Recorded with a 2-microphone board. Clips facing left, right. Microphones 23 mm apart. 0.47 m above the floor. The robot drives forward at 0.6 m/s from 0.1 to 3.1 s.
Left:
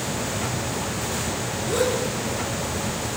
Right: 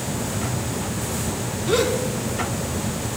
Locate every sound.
1.7 s a gasp: 40° right (ahead or behind), 3.5 m